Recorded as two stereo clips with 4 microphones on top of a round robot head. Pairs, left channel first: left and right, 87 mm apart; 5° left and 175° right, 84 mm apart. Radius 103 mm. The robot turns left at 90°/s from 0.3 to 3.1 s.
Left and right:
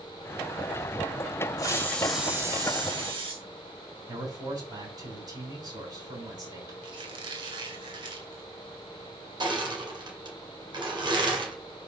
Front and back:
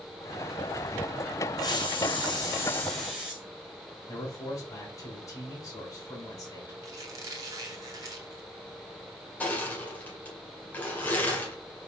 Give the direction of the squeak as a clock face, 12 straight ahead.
4 o'clock.